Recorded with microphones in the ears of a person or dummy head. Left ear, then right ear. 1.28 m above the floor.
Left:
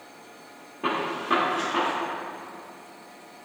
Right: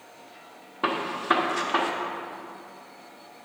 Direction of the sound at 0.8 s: 50° right (ahead or behind).